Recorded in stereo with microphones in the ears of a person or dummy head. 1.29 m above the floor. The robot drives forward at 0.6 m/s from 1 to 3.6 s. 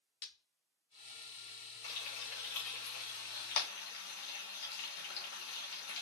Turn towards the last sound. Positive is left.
turn(degrees=85)